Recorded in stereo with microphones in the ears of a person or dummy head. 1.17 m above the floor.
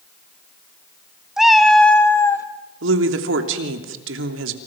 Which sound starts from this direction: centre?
A cat meowing, at 1.4 s.